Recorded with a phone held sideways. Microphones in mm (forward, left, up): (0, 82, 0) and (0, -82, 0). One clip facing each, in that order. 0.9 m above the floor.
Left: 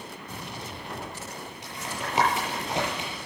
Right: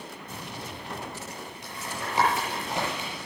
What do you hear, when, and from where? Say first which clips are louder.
1.6 s tapping: left 1 dB; 15° left (ahead or behind), 8 m